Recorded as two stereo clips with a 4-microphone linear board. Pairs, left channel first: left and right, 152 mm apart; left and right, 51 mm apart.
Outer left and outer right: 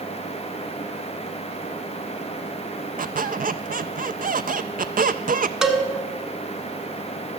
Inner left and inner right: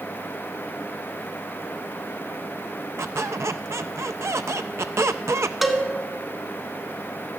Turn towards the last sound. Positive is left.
turn(degrees=-5)  # may be behind; listen again after turning